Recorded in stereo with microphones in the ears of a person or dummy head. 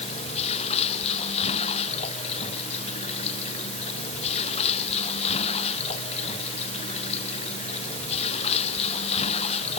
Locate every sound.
0.0 s running water: 35° left (ahead or behind)